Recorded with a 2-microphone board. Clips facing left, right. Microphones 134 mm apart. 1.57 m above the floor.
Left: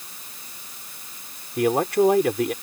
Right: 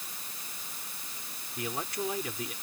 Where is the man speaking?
70° left (ahead or behind).